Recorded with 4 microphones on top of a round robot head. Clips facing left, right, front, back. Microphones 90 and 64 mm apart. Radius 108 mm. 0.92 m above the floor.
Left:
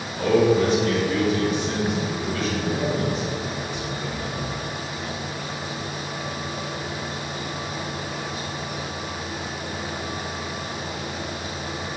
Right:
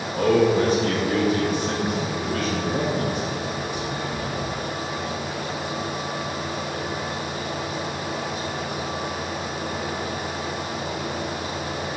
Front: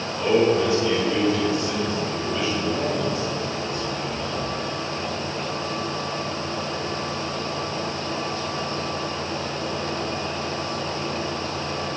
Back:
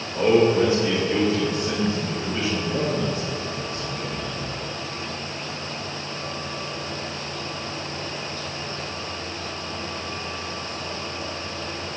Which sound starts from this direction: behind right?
A man speaking, at 0.1 s.